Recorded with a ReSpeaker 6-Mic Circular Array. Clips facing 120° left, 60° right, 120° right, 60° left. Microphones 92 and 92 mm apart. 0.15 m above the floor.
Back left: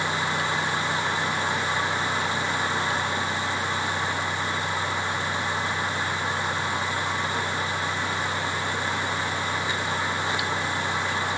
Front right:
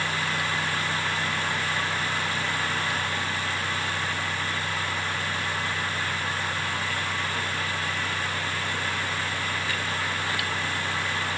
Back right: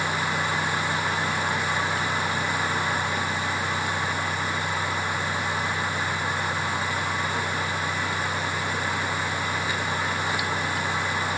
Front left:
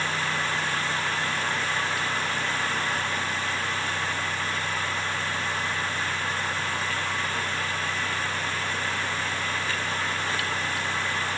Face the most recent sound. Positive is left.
No sound to turn to.